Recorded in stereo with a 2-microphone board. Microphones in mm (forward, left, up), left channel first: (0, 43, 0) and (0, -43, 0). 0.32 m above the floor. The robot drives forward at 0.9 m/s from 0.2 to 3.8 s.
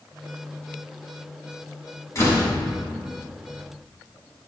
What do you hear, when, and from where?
2.1 s a door slam: 40° left (ahead or behind), 2 m; by 2.5 s 45° left (ahead or behind), 1.9 m